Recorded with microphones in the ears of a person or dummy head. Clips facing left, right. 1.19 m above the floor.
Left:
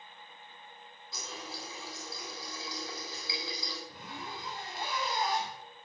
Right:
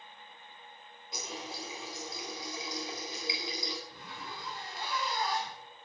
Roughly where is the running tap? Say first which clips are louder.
Right 3 dB; centre.